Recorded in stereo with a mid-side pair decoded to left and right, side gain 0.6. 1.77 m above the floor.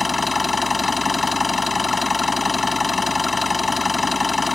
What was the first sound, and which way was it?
An engine running, 20° left.